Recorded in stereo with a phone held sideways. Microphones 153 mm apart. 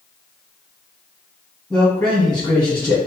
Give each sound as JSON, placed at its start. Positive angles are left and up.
{"t": 1.7, "sound": "a man speaking", "side_deg": 10, "distance_m": 1.7}